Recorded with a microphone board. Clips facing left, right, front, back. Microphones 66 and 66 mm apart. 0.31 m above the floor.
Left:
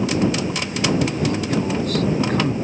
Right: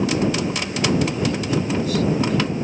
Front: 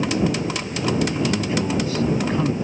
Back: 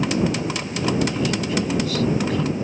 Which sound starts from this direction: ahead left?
A man speaking, at 1.1 s.